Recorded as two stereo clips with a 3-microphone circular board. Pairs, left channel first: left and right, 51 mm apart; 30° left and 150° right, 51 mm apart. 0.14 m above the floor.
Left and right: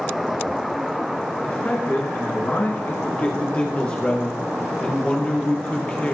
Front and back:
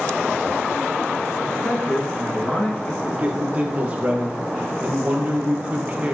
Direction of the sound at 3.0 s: 150° left.